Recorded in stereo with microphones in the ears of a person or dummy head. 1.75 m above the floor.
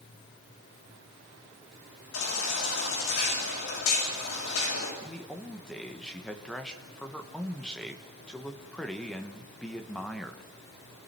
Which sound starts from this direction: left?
A baby crying, at 2.1 s.